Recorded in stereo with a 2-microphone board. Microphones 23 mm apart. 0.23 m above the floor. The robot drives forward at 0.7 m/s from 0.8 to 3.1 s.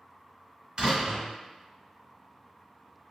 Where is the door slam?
45° right (ahead or behind), 1.7 m.